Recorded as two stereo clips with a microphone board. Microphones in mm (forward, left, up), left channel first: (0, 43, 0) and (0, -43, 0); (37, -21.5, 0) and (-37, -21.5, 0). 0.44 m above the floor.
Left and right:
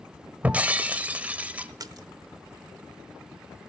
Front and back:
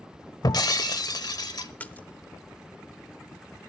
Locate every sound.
0.4 s breaking glass: 20° right, 0.9 m
1.8 s a splash: 65° right, 0.8 m